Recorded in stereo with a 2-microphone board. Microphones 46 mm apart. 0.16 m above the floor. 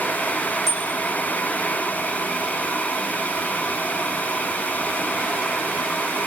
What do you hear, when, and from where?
0.7 s a bicycle bell: 5° left (ahead or behind), 6 m